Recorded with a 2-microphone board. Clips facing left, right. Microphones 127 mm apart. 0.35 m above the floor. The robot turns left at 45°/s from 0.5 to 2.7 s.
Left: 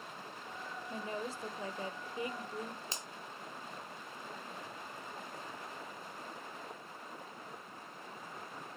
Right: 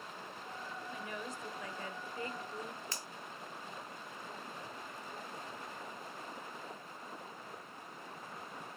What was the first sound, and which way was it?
A woman speaking, 95° left.